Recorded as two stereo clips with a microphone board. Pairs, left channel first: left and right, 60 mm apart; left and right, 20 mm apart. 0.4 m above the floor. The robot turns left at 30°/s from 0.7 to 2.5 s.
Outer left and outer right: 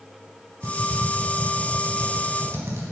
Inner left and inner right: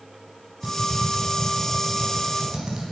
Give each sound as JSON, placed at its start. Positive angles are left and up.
{"t": 0.6, "sound": "typing on a keyboard", "side_deg": -65, "distance_m": 4.0}